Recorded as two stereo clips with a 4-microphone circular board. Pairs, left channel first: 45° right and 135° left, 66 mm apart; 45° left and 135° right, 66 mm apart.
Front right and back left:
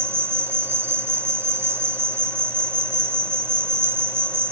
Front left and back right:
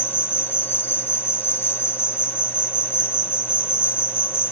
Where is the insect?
95° left.